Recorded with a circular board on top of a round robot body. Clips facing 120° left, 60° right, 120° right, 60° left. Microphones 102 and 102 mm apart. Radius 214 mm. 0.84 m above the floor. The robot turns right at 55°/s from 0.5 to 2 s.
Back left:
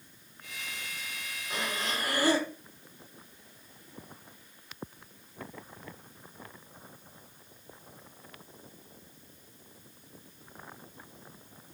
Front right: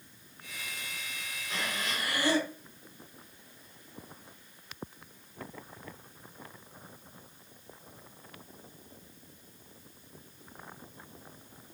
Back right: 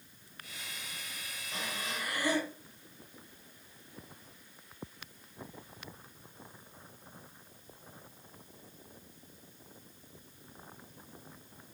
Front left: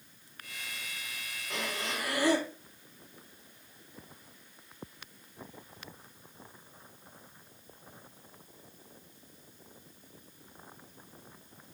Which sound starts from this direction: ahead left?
Breathing, at 1.5 s.